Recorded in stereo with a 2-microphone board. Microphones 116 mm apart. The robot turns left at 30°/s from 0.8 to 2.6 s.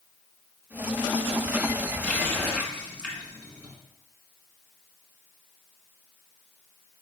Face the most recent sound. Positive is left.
turn(degrees=10)  # may be behind; listen again after turning